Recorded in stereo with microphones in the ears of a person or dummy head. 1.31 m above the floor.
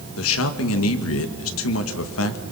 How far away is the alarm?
I don't hear an alarm.